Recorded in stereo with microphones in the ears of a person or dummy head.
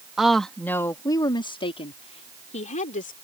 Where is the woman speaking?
Centre (ahead or behind); by 3.1 s 45° left (ahead or behind).